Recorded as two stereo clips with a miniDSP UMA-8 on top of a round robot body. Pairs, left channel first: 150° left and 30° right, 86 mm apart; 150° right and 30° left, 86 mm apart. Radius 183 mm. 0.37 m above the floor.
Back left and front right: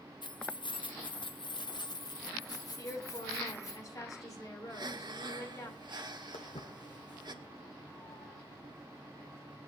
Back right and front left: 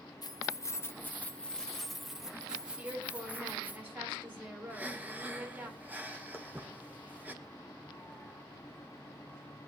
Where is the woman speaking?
100° left, 5.5 m.